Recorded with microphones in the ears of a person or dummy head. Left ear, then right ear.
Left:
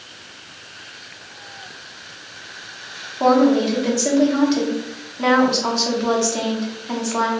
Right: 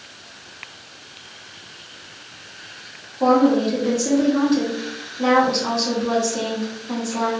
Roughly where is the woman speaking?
Left.